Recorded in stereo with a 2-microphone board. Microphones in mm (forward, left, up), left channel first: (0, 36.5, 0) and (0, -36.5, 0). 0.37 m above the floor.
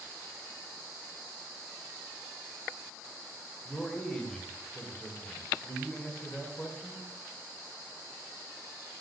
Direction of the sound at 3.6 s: 10° left (ahead or behind).